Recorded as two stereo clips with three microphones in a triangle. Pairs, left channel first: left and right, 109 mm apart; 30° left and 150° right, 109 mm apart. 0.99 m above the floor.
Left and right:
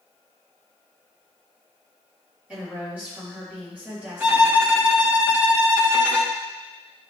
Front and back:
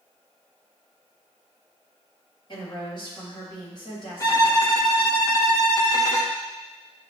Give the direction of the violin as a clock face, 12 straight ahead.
1 o'clock.